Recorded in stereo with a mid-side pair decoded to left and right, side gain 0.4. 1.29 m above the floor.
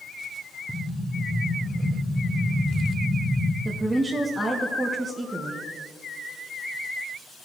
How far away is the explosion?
About 1.2 m.